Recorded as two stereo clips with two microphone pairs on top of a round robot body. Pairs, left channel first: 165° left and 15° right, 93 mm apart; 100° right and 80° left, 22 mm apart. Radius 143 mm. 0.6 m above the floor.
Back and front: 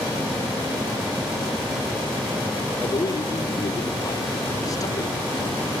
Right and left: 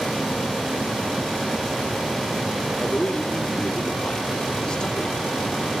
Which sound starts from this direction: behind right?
A man speaking, at 2.8 s.